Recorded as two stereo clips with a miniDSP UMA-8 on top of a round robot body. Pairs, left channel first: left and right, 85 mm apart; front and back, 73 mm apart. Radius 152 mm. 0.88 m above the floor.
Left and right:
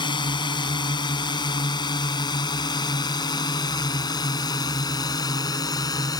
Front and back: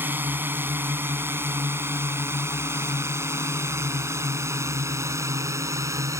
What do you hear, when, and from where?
0.0 s a drone: 115° left; by 6.2 s 130° left